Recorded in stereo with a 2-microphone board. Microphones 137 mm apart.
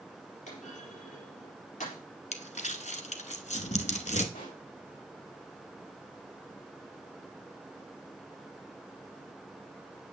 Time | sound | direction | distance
0.5 | a clunk | 65° left (ahead or behind) | 4.5 m
2.3 | crumpling | 60° left (ahead or behind) | 0.8 m
4.3 | a pop | 85° left | 4.5 m